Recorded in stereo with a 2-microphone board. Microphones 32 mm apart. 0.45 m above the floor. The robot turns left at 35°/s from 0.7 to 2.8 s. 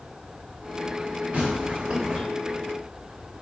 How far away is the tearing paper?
About 1.8 m.